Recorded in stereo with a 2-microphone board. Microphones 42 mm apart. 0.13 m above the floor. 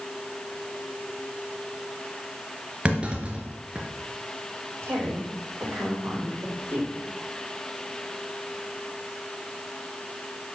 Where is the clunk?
25° right (ahead or behind), 2.5 m.